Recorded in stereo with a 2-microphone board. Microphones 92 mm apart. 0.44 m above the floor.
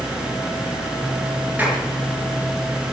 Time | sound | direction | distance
1.6 | a clap | 20° right (ahead or behind) | 5.5 m